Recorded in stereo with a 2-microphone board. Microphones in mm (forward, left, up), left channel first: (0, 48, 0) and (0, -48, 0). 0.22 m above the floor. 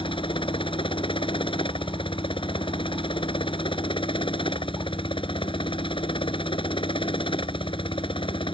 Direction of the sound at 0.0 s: 60° left (ahead or behind).